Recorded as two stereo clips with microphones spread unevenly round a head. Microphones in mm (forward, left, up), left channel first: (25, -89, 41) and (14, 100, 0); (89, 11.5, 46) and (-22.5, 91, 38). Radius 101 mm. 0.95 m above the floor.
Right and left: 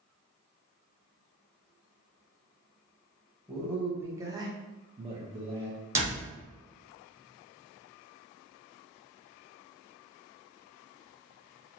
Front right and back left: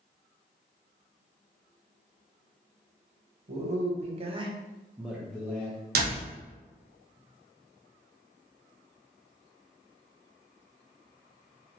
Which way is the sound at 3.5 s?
175° left.